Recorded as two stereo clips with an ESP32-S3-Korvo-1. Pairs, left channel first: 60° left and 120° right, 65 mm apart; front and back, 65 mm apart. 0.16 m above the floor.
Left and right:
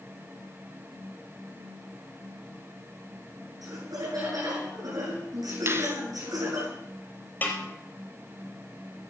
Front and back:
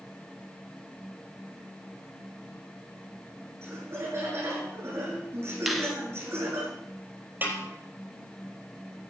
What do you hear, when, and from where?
3.6 s laughter: 135° right, 9 m
5.7 s a finger snap: 95° right, 1.3 m
7.4 s a snare drum: 120° left, 4.5 m